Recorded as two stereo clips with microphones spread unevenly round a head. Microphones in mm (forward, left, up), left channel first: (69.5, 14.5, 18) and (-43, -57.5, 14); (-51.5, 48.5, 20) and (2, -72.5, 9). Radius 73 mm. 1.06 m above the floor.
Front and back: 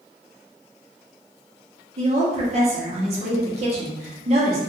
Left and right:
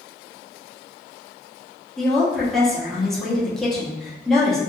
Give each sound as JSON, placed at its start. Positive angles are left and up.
{"t": 2.0, "sound": "a woman speaking", "azimuth_deg": -155, "distance_m": 1.0}